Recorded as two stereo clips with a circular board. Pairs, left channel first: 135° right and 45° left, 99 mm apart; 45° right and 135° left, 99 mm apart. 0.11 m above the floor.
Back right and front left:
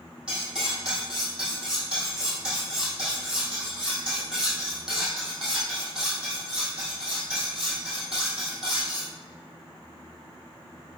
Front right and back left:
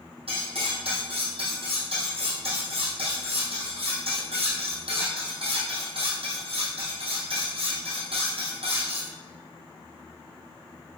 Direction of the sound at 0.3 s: 125° left.